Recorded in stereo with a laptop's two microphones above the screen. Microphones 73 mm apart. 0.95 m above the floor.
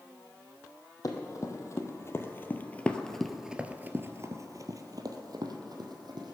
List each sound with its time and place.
1.0 s running footsteps: 50° left (ahead or behind), 2.5 m; by 6.3 s 70° right (ahead or behind), 2.5 m